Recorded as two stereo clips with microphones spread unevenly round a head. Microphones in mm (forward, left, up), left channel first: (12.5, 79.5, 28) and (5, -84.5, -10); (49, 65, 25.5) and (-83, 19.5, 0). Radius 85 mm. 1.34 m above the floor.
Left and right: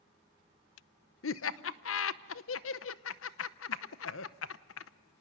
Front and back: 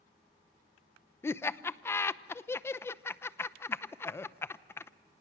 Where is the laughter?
95° left, 0.8 m.